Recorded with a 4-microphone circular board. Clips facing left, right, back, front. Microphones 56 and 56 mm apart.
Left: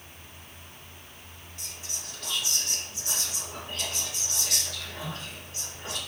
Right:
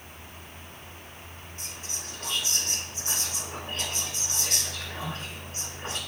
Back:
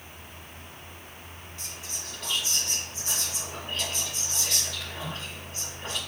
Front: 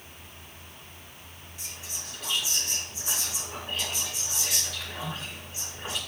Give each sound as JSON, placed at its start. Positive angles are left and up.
{"t": 1.6, "sound": "whispering", "azimuth_deg": -70, "distance_m": 1.6}